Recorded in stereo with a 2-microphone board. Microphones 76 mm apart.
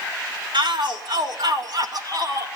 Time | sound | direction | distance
0.5 | a shout | 75° right (ahead or behind) | 3 m